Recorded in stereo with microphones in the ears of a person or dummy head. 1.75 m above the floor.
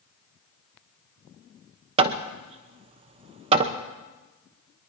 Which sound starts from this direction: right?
Hammering, at 2.0 s.